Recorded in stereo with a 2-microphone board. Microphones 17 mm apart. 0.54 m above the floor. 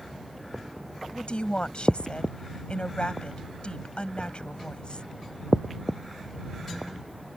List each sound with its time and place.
1.1 s a woman speaking: 65° left (ahead or behind)